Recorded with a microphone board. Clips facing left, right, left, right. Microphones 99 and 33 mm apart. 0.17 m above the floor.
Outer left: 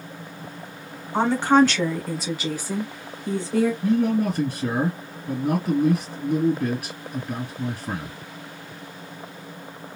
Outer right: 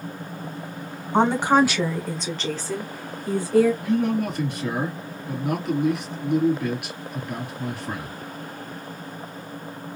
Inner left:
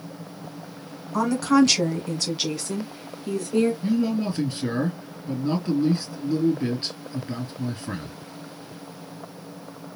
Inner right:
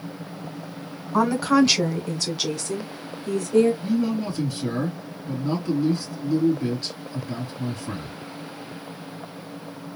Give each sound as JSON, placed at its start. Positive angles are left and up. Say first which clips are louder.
{"t": 1.1, "sound": "a woman speaking", "louder": "outer left 1 dB, even", "side_deg": -20, "distance_m": 1.3}
{"t": 3.8, "sound": "a man speaking", "louder": "outer left 2 dB, inner left 1 dB", "side_deg": 40, "distance_m": 3.0}